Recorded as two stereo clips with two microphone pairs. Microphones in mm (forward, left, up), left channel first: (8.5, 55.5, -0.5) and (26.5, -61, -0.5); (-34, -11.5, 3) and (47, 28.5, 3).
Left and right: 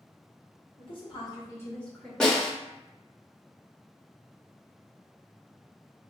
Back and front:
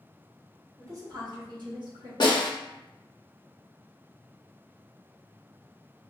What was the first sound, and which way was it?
A woman speaking, 70° left.